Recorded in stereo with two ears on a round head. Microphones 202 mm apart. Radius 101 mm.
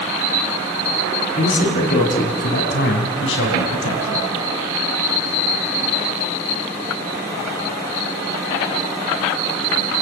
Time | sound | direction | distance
1.4 | a man speaking | 35° left (ahead or behind) | 5.5 m